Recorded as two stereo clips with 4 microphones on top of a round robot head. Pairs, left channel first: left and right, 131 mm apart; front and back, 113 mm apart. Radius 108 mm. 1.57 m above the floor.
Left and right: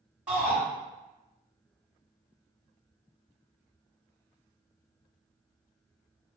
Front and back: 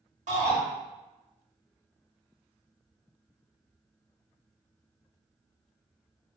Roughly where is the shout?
Behind.